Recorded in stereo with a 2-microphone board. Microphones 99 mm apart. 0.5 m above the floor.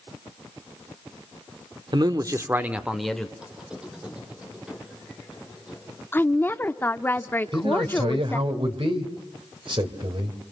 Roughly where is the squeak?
Centre.